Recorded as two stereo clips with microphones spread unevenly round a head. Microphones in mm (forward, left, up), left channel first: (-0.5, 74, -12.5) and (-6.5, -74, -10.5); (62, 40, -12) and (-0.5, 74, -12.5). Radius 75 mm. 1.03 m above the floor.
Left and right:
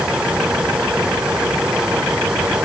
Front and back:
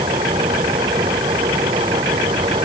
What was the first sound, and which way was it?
A fan, 175° right.